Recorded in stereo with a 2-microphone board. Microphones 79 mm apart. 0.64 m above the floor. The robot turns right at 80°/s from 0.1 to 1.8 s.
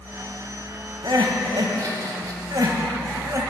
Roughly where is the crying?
Right.